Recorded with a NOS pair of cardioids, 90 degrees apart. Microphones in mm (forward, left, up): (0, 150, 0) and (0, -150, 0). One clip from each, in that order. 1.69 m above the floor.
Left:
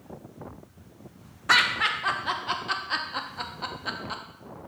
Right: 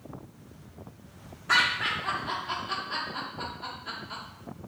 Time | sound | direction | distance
1.5 | laughter | 55° left | 0.9 m